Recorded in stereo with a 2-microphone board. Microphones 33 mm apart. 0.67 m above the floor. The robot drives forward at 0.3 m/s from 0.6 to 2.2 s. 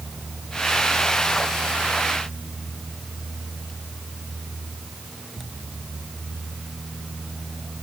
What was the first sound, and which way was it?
Only background noise.